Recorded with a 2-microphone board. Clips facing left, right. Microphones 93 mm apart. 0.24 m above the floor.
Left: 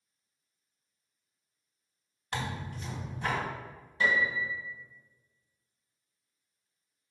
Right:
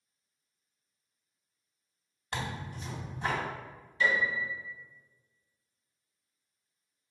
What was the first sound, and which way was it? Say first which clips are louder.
Tearing paper: left 1 dB; 25° right (ahead or behind).